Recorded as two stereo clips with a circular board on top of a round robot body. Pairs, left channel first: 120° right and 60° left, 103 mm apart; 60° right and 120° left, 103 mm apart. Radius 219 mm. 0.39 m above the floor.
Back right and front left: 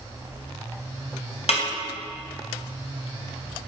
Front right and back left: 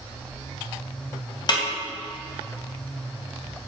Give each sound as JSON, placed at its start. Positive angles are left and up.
{"t": 1.5, "sound": "a snare drum", "azimuth_deg": -105, "distance_m": 3.0}